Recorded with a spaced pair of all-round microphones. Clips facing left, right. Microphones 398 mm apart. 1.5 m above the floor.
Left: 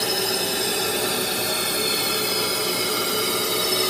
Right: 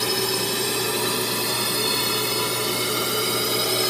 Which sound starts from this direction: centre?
A drone, at 0.0 s.